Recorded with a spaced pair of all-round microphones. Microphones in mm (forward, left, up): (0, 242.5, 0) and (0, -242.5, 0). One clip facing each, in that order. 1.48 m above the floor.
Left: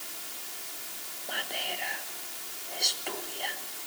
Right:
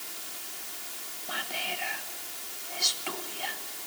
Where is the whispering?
25° right (ahead or behind), 1.4 m.